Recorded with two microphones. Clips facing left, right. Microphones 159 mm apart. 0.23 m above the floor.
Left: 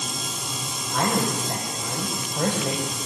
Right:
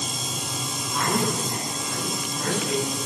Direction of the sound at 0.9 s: 60° left (ahead or behind).